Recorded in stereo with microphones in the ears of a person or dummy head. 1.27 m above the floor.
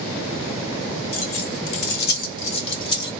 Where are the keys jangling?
65° left (ahead or behind), 1.1 m; by 3.1 s 25° left (ahead or behind), 1.5 m.